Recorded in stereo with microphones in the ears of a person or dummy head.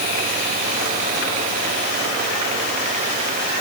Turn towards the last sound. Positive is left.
No sound to turn to.